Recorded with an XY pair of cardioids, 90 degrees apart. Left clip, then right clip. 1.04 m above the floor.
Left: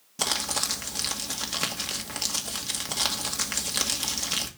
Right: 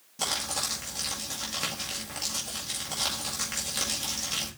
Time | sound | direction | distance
0.2 | crumpling | 55° left | 2 m